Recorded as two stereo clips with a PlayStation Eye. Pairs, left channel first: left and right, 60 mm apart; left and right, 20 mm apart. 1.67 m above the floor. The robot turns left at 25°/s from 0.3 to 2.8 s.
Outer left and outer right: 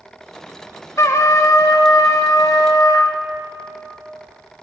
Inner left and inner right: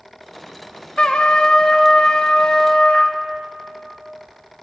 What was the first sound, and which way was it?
A trumpet, 120° left.